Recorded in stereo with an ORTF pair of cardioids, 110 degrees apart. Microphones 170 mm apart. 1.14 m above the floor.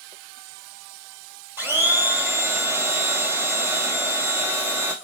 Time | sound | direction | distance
1.6 | a blender | 15° right | 2.5 m